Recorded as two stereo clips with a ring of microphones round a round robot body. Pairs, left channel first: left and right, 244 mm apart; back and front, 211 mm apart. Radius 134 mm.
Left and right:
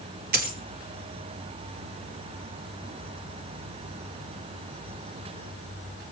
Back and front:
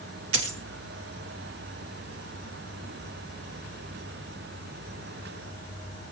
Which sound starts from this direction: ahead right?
A dropped coin, at 0.3 s.